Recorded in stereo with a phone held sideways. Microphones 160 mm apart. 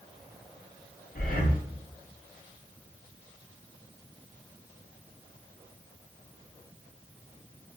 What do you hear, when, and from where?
1.1 s breathing: 65° left (ahead or behind), 0.5 m